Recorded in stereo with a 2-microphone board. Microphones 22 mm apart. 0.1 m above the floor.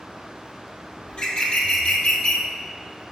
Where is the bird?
40° left (ahead or behind), 1.7 m.